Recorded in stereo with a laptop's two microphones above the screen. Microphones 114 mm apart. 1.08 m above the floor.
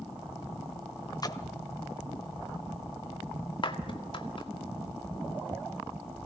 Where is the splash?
35° left (ahead or behind), 1.3 m.